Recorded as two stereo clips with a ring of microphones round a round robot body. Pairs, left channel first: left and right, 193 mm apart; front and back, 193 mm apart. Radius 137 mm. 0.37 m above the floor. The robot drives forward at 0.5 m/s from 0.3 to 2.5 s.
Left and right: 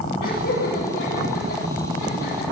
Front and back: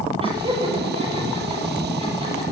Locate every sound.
0.2 s laughter: 120° left, 9 m; by 2.4 s 125° left, 9.5 m